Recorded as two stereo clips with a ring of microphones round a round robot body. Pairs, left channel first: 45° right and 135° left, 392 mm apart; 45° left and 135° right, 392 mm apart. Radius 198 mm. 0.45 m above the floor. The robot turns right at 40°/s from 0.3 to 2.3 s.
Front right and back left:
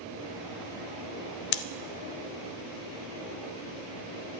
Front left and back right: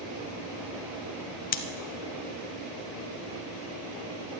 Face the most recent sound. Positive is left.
turn(degrees=5)